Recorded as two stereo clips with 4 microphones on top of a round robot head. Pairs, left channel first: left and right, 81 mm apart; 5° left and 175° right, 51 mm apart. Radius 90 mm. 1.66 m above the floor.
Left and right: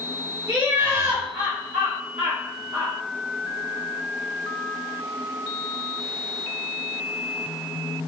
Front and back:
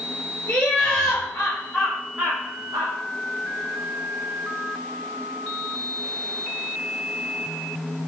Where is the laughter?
45° right, 1.1 m; by 2.9 s 165° right, 0.7 m.